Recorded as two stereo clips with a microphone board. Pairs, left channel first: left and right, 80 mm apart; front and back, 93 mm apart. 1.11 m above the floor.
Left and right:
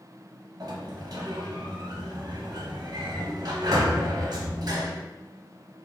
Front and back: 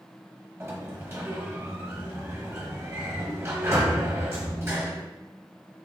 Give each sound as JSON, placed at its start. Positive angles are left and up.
{"t": 0.6, "sound": "a sliding door", "azimuth_deg": -120, "distance_m": 0.8}